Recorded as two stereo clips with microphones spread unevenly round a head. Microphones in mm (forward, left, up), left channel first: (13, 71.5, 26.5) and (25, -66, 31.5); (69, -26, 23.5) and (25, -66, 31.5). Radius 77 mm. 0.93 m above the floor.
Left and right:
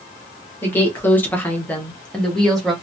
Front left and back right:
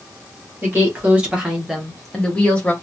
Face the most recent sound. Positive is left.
turn(degrees=10)